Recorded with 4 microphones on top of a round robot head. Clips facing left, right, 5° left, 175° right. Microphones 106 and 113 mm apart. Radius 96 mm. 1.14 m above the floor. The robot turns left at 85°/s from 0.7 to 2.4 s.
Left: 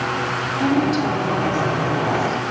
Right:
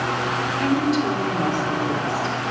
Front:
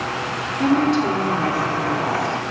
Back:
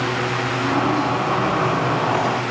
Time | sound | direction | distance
0.6 | a woman speaking | 15° left | 3 m